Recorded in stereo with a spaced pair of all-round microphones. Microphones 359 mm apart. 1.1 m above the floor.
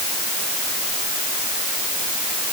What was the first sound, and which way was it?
Only background noise.